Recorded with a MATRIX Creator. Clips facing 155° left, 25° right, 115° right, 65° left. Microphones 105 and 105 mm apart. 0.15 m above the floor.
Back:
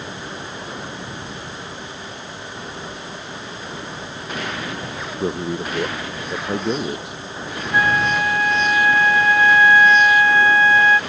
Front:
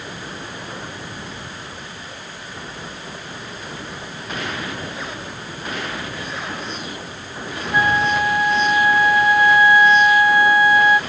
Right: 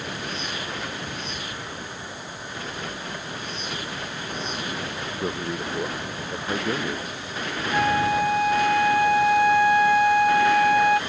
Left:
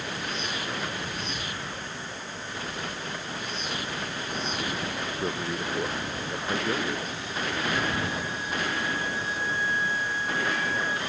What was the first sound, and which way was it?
A man speaking, 165° left.